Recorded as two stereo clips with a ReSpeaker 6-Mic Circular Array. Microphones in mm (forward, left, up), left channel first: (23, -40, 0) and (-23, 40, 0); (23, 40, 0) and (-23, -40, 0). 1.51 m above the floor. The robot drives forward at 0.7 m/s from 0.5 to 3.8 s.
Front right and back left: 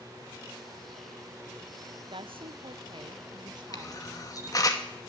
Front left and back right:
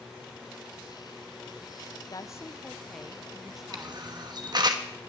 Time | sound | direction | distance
2.1 | a woman speaking | 105° left | 0.6 m
3.7 | a camera shutter | 95° right | 1.2 m